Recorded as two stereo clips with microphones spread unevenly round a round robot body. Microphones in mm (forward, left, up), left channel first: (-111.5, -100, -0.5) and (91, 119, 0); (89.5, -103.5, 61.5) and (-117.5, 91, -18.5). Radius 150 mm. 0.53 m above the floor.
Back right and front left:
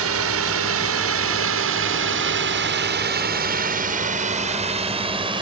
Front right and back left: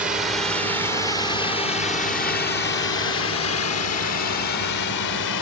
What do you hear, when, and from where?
0.0 s a drone: 65° left; by 5.4 s 25° right